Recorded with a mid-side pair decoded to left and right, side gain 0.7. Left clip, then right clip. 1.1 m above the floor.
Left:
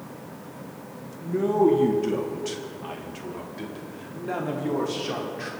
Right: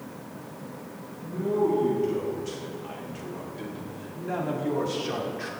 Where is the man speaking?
55° left, 1.7 m; by 5.5 s straight ahead, 3 m.